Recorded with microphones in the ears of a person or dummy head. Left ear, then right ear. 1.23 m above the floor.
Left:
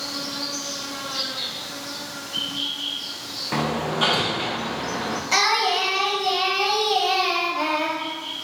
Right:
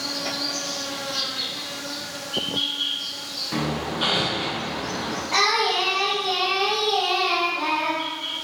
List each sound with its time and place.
0.0 s an insect: 10° right (ahead or behind), 1.8 m
3.5 s hammering: 30° left (ahead or behind), 0.5 m
5.3 s singing: 70° left (ahead or behind), 1.2 m